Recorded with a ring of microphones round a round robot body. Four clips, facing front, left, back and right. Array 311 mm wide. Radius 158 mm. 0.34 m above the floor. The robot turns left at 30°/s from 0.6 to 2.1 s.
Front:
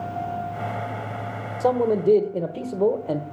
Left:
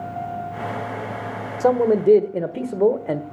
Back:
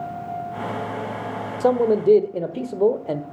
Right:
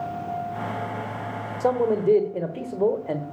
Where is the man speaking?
125° left, 1.1 m; by 3.2 s 110° left, 1.1 m.